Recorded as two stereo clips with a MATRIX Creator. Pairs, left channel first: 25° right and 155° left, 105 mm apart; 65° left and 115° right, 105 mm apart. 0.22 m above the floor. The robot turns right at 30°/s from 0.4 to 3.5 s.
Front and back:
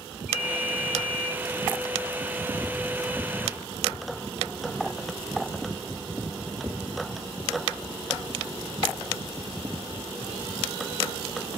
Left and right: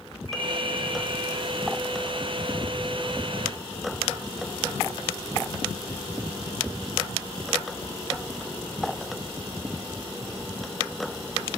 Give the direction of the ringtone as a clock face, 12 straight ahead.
5 o'clock.